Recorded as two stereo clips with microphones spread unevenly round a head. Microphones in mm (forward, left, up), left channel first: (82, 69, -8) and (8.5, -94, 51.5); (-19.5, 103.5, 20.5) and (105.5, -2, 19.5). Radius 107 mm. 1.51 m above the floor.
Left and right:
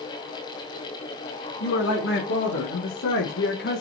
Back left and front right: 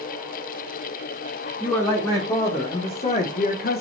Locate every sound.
1.6 s a man speaking: 60° left, 2.5 m; by 3.8 s 120° left, 1.3 m